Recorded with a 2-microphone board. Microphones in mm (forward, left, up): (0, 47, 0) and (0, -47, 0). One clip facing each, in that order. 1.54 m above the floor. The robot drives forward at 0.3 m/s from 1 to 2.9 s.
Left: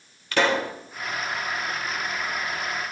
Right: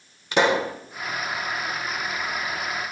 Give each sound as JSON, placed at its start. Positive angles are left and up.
{"t": 0.3, "sound": "a pop", "side_deg": -20, "distance_m": 1.3}